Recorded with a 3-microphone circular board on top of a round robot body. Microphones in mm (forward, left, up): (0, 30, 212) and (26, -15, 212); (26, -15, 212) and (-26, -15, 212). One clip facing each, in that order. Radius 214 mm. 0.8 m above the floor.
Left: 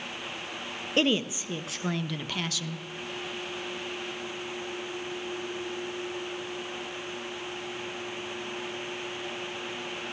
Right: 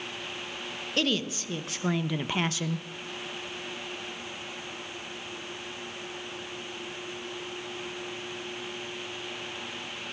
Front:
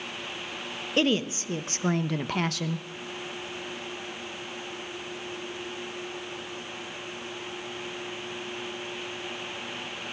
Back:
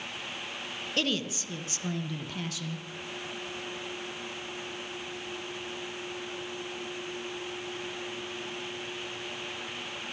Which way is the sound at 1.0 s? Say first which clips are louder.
Left 3 dB, front 6 dB; 60° left.